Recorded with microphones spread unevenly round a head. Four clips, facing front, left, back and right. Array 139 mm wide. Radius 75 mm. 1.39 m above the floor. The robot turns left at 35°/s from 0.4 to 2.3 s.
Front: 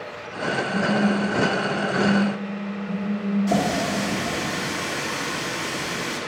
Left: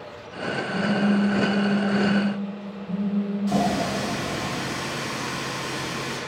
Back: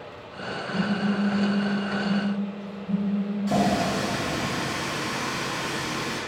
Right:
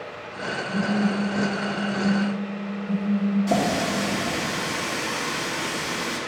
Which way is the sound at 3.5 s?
80° right.